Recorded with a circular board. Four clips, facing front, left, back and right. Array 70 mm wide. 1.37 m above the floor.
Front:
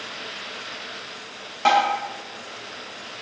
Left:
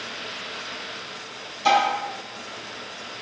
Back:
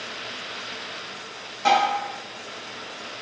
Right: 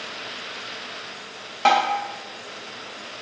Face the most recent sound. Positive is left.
turn(degrees=-70)